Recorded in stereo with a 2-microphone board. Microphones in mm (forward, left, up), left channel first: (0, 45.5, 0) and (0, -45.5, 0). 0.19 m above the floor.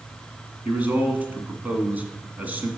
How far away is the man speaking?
About 1.8 m.